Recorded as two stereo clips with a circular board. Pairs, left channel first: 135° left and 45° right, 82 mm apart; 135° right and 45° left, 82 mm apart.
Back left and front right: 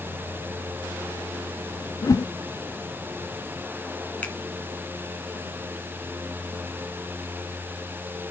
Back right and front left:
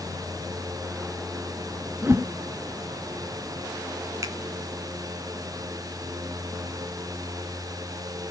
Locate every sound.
2.0 s a whoosh: 100° left, 0.6 m
4.2 s a finger snap: 70° left, 2 m